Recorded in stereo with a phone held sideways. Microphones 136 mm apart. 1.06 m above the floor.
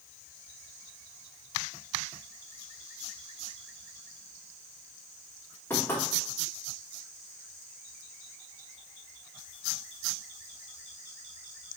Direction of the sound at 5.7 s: 15° left (ahead or behind).